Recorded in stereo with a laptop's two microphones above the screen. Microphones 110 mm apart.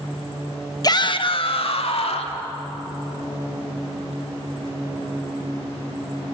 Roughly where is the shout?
Left.